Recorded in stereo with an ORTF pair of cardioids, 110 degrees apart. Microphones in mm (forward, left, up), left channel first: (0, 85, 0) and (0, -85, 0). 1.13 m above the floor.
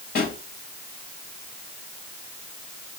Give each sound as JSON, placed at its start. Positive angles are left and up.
{"t": 0.1, "sound": "a pop", "azimuth_deg": 65, "distance_m": 4.0}